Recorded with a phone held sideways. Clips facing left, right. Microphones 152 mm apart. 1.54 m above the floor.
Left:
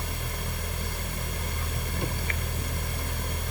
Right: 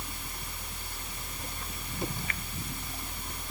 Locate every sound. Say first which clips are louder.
0.0 s a fan: left 7 dB; 70° left (ahead or behind)